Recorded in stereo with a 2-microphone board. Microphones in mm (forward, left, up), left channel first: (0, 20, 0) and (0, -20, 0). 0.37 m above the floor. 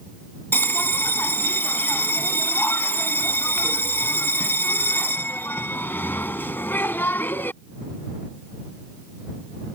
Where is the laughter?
I don't hear laughter.